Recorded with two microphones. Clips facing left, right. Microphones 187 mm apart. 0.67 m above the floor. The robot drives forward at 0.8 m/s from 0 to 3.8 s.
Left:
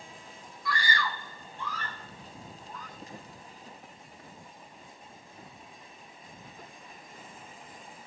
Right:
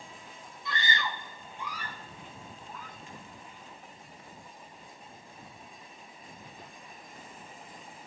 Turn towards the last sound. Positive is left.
turn(degrees=45)  # may be behind; listen again after turning